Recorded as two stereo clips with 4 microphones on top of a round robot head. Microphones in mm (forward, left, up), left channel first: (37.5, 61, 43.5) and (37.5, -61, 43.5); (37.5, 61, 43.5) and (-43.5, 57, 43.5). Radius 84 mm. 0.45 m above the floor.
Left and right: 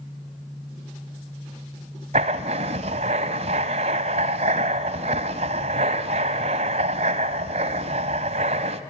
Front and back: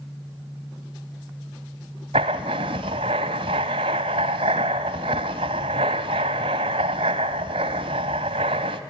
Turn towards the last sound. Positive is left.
turn(degrees=-140)